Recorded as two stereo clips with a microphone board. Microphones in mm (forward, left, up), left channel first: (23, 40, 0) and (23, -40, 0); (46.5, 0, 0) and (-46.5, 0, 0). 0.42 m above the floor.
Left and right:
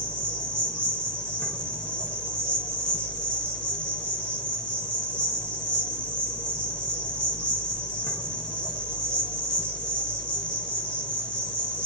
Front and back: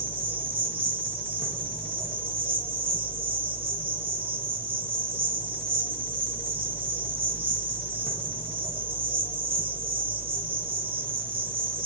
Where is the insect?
175° left, 6.5 m.